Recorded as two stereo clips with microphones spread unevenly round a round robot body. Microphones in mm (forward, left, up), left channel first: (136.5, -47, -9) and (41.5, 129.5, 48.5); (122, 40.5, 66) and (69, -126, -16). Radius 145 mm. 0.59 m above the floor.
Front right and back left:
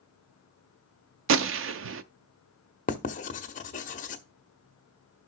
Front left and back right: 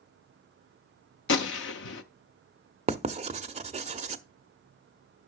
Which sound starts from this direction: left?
A gunshot, at 1.3 s.